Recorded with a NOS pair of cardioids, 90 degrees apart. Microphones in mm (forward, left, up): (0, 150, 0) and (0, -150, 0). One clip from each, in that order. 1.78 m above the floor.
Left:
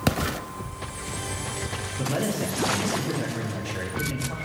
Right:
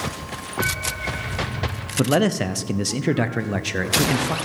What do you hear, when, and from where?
2.0 s a man speaking: 70° right, 1.0 m